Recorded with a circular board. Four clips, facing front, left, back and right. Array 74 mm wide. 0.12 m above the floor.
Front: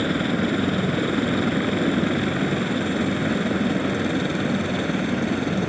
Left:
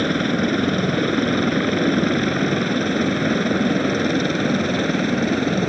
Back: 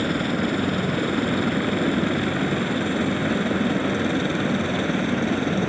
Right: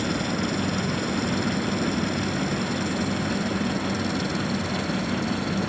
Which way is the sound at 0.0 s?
80° left.